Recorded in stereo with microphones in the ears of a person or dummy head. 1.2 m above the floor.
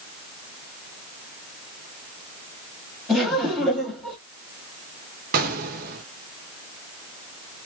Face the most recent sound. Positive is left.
turn(degrees=-50)  # may be behind; listen again after turning